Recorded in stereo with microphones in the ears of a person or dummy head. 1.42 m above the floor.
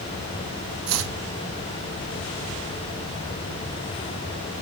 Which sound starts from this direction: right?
Chopping, at 0.9 s.